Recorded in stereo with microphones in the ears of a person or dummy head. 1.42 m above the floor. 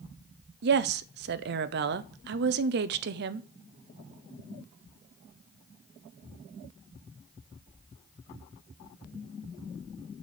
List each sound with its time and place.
0.6 s a woman speaking: 55° right (ahead or behind), 0.6 m